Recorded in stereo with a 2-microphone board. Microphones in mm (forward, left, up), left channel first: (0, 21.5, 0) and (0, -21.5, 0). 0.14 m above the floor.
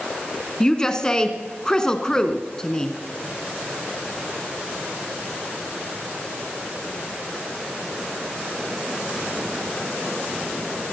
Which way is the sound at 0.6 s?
15° left (ahead or behind).